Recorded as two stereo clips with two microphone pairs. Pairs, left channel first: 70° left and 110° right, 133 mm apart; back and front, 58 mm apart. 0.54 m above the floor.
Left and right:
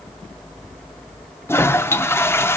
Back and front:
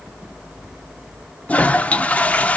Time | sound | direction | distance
1.5 | a toilet flushing | 130° left | 0.6 m